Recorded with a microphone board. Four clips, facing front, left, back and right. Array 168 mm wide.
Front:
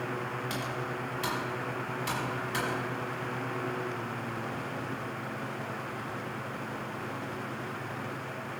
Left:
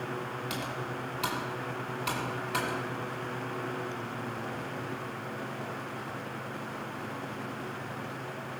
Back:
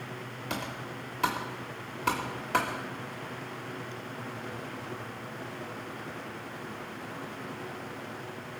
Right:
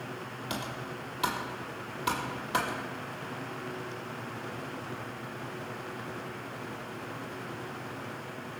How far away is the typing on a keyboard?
About 2.5 m.